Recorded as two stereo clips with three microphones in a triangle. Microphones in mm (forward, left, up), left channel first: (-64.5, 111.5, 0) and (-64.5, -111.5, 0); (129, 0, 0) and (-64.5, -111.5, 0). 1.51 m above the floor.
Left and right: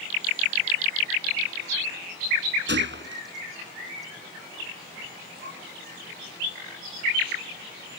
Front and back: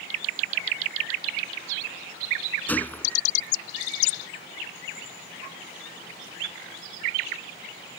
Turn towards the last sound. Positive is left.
turn(degrees=-55)